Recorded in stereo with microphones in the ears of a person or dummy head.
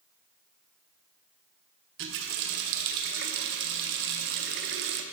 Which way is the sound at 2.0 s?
60° right (ahead or behind).